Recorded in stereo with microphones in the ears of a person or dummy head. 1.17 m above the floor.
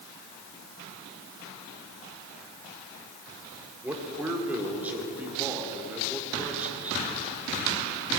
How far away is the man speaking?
About 4.5 m.